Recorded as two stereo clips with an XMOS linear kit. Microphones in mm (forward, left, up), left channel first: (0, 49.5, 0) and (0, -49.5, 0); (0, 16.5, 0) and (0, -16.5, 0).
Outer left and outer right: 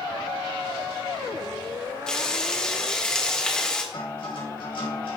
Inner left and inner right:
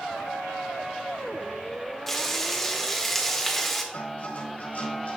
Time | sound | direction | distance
2.1 | frying | 10° left (ahead or behind) | 1.6 m
3.9 | a guitar | 65° left (ahead or behind) | 4 m